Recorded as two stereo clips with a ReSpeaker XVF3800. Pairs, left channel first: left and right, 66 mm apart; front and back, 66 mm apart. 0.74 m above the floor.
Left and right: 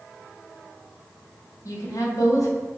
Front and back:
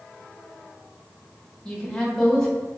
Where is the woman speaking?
80° left, 0.9 m.